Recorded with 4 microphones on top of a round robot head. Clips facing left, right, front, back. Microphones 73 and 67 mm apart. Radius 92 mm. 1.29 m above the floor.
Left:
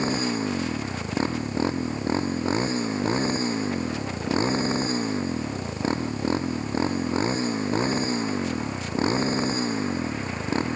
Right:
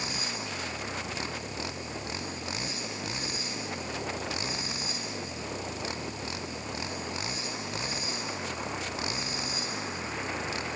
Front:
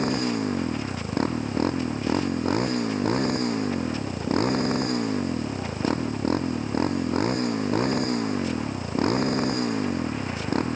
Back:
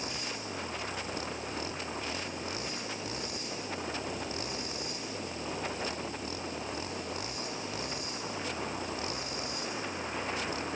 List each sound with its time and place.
0.0 s a motorcycle: 35° left